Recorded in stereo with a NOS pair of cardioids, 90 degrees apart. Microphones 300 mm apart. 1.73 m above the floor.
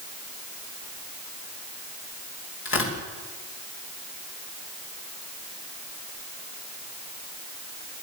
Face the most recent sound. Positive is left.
turn(degrees=45)